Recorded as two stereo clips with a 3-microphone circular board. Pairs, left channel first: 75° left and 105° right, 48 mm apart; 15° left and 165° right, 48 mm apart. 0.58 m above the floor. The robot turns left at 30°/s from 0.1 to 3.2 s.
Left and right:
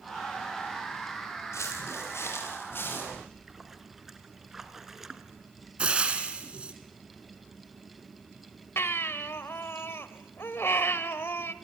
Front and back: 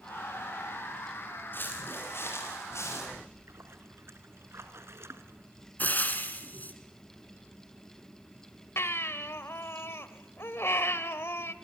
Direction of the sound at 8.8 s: 45° left.